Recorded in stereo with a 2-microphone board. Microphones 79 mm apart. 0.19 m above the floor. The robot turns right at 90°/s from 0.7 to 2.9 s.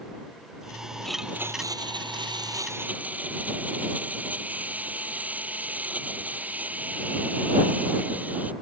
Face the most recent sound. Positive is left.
turn(degrees=-20)